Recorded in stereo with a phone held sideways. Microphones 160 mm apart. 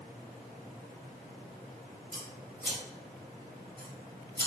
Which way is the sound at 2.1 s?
80° right.